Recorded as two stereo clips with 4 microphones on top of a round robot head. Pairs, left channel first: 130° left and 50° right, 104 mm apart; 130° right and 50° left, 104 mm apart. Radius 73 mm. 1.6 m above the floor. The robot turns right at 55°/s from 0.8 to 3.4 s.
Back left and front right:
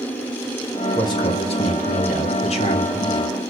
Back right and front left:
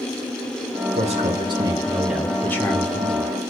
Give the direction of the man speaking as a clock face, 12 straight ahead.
10 o'clock.